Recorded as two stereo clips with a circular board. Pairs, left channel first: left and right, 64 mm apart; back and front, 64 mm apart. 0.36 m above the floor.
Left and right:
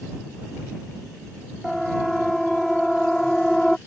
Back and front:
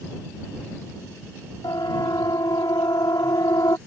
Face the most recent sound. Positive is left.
turn(degrees=175)